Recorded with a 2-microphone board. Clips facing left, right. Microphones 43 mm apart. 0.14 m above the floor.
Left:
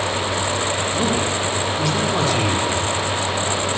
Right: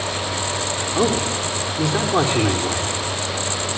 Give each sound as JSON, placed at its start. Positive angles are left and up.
{"t": 0.9, "sound": "a man speaking", "side_deg": -20, "distance_m": 5.5}